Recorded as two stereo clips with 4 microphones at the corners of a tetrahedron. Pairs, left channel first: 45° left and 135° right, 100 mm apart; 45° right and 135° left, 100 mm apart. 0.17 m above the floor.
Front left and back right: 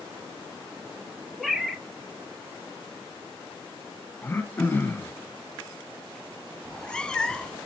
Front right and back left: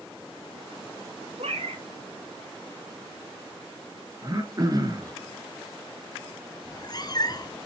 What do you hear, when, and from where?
1.4 s a cat meowing: 135° left, 1.2 m
4.2 s throat clearing: 110° left, 1.6 m
6.7 s a cat meowing: 35° right, 0.7 m